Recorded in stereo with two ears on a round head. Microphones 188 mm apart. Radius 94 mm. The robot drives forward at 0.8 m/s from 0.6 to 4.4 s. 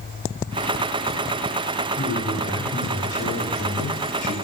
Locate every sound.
1.9 s a man speaking: 10° left (ahead or behind), 2.5 m; by 4.3 s 45° left (ahead or behind), 0.5 m